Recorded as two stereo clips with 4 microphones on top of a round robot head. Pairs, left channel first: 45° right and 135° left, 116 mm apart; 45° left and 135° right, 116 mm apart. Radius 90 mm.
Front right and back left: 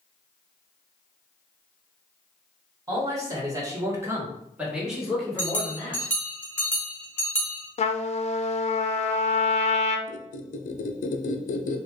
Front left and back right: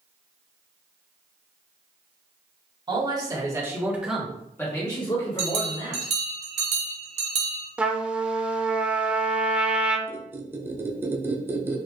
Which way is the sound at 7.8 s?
55° right.